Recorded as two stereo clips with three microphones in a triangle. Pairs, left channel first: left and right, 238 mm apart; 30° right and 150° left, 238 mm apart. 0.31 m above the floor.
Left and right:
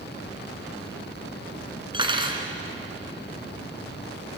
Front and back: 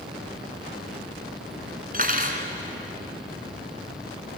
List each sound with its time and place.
1.9 s cutlery clinking: 160° right, 2.5 m